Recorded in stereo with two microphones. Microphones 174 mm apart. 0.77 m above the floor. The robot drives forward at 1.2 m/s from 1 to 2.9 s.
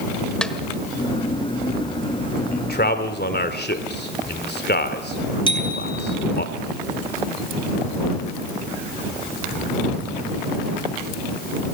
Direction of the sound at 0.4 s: 5° left (ahead or behind).